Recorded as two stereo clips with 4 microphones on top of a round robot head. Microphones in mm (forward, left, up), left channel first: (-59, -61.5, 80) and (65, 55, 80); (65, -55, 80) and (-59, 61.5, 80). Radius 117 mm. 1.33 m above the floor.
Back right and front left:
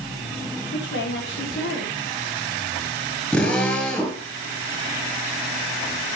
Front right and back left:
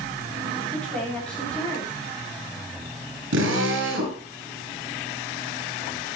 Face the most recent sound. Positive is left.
turn(degrees=140)